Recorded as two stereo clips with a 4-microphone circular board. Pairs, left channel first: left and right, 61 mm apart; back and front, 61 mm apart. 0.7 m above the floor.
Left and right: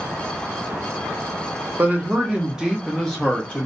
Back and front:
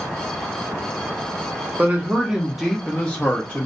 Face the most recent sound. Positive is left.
turn(degrees=150)